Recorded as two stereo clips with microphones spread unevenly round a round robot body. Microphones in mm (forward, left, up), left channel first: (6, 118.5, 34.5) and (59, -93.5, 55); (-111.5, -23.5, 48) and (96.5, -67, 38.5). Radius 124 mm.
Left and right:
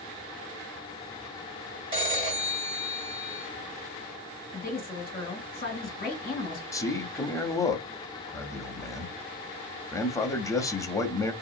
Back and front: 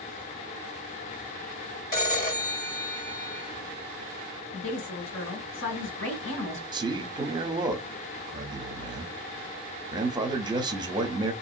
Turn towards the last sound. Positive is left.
turn(degrees=45)